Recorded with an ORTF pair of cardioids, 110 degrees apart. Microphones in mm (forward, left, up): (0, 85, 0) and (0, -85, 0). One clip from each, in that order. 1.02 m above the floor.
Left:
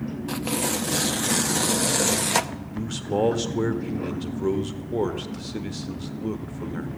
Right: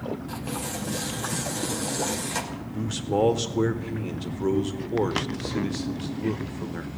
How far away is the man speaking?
About 1.5 m.